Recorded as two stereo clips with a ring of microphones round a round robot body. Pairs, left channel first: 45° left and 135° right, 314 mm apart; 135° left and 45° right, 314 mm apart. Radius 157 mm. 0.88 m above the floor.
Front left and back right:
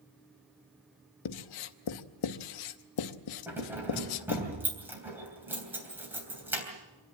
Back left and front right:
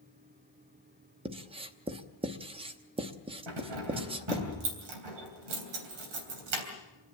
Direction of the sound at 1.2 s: 30° left.